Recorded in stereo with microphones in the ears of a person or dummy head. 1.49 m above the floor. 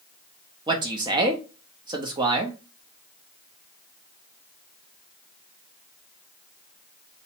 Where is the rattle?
I don't hear a rattle.